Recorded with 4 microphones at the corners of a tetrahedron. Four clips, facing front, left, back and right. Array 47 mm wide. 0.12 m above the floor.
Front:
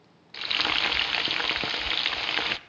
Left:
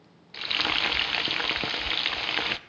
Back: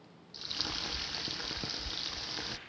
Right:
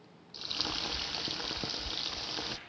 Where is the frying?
40° left, 0.6 m.